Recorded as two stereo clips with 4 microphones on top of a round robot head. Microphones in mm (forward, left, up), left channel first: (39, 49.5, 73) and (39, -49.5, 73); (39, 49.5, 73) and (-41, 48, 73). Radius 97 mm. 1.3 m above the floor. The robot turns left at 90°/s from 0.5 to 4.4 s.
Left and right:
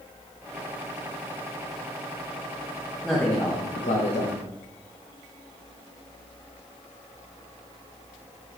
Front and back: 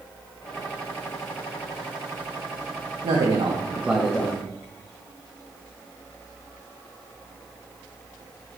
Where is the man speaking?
Straight behind, 1.1 m; by 4.4 s 60° left, 1.1 m.